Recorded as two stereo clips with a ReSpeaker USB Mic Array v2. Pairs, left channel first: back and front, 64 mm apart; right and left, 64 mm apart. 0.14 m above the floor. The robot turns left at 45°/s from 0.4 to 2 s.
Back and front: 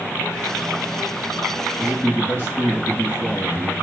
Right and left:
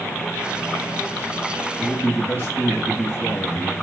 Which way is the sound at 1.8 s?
110° right.